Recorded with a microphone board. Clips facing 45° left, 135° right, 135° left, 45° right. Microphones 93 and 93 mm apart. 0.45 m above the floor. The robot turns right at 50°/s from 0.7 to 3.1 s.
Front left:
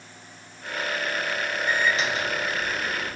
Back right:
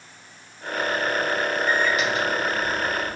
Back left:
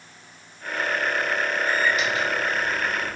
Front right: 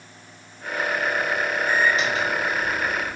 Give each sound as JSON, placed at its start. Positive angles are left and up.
{"t": 1.7, "sound": "a microwave", "azimuth_deg": -20, "distance_m": 0.8}